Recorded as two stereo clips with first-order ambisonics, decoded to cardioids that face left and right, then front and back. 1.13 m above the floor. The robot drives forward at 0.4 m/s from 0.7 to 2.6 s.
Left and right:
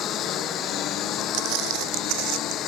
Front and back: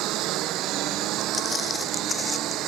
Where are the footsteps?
70° right; by 2.6 s 80° right.